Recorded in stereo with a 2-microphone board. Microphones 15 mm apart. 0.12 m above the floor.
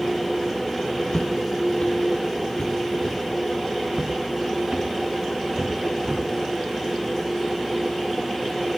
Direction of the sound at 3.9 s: 50° right (ahead or behind).